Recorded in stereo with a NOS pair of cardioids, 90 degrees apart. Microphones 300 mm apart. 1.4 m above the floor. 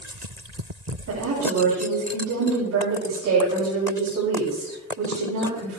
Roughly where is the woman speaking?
Ahead right.